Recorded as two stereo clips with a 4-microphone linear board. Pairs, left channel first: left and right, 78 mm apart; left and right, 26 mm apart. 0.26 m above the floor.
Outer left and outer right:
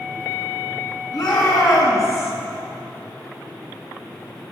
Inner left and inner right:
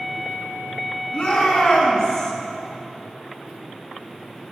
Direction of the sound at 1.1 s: 60° left (ahead or behind).